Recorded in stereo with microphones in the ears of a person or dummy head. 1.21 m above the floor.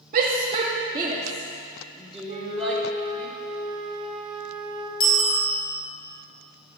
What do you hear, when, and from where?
0.1 s a shout: 45° right (ahead or behind), 1.8 m; by 3.3 s 10° left (ahead or behind), 3.5 m
2.3 s a flute: 40° right (ahead or behind), 2 m
5.0 s a bicycle bell: 25° left (ahead or behind), 5 m